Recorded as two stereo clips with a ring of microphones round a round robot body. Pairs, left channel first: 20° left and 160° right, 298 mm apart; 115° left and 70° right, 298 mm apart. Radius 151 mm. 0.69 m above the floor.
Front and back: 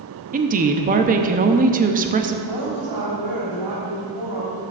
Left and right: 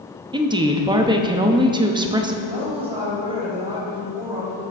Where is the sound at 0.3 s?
130° right, 0.7 m.